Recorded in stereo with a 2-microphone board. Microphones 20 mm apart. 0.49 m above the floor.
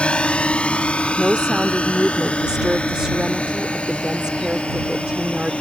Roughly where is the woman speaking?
Right.